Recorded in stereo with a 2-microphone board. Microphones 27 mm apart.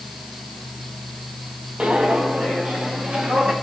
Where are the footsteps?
55° right (ahead or behind), 1.8 m; by 3.5 s 70° right (ahead or behind), 3 m.